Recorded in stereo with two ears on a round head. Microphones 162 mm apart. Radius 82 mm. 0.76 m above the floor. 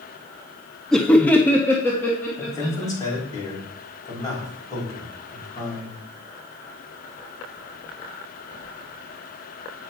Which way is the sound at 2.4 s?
20° left (ahead or behind).